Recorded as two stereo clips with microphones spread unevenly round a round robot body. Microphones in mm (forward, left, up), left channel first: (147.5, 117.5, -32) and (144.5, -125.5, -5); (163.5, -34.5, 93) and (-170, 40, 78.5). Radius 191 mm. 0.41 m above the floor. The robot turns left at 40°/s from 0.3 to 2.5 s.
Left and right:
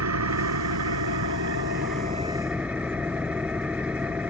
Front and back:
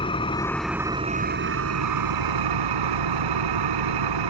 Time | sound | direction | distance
0.0 | an engine running | 90° right | ?